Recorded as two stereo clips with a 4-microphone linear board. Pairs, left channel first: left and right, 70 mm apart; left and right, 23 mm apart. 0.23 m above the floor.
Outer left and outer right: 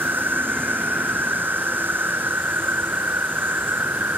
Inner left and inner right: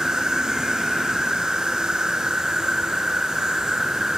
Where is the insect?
30° right (ahead or behind).